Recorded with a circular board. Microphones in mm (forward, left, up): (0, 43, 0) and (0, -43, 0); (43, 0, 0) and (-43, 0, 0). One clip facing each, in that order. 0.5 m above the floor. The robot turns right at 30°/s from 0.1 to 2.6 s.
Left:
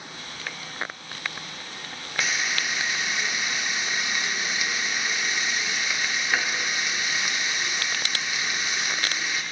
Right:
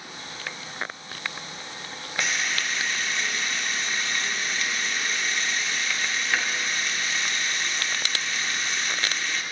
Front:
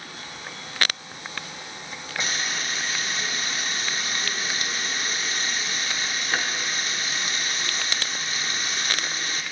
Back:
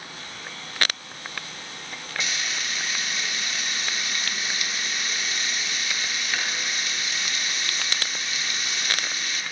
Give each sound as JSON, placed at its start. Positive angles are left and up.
{"t": 2.2, "sound": "frying", "azimuth_deg": 5, "distance_m": 0.7}